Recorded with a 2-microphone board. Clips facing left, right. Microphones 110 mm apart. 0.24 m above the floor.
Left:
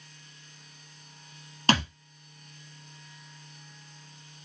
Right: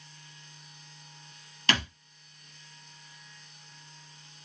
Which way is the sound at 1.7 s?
35° left (ahead or behind).